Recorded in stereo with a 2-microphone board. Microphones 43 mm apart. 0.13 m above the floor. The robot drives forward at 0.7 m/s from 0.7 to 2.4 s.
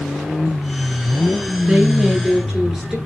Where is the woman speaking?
15° right (ahead or behind), 1.2 m; by 3.0 s 10° right (ahead or behind), 1.5 m.